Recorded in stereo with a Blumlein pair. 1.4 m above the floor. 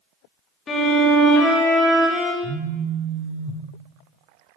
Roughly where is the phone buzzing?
Ahead right.